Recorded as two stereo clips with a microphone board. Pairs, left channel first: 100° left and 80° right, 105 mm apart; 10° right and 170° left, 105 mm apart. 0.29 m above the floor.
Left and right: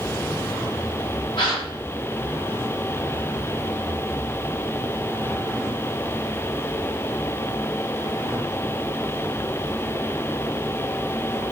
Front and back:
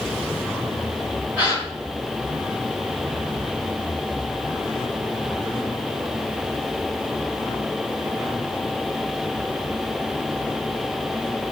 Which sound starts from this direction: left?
A gasp, at 1.4 s.